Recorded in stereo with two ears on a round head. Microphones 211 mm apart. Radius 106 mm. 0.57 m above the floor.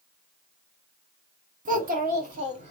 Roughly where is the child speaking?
Right.